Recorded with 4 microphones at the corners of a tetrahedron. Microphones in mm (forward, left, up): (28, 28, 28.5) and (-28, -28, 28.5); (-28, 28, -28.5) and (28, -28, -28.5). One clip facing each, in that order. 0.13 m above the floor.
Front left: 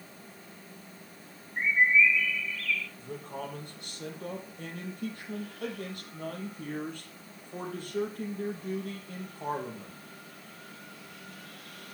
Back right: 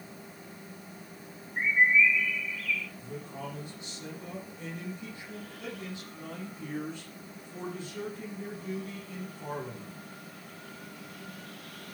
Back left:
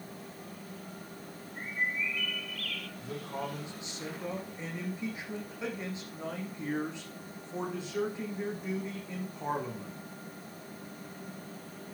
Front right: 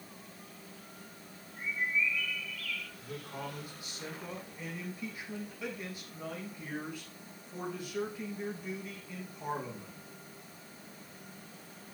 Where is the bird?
145° left, 1.2 m.